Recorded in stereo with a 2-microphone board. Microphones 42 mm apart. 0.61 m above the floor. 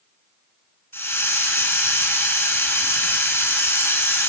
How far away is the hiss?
About 1.0 m.